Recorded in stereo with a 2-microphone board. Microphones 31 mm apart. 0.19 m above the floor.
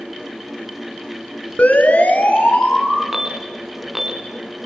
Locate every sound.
1.6 s a siren: 55° left (ahead or behind), 3.5 m; by 3.0 s 60° left (ahead or behind), 5 m
3.1 s an alarm: 10° right (ahead or behind), 3 m